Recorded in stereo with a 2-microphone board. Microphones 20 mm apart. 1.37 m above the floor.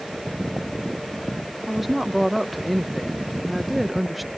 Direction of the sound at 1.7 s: Centre (ahead or behind).